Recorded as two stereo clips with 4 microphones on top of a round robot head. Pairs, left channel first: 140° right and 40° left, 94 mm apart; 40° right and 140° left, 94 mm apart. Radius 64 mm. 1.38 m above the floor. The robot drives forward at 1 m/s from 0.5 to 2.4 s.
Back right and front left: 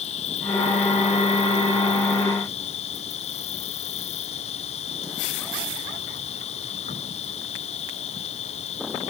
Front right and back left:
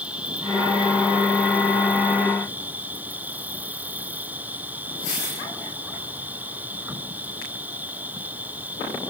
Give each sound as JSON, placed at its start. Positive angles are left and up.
{"t": 0.0, "sound": "an insect", "azimuth_deg": -145}